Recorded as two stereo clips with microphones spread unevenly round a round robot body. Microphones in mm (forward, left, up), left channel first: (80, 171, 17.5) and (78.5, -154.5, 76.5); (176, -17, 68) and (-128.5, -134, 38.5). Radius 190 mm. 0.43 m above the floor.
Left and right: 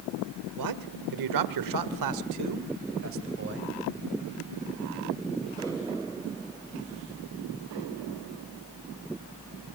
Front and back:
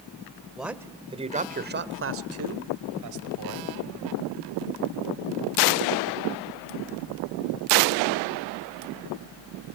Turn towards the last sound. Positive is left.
turn(degrees=-155)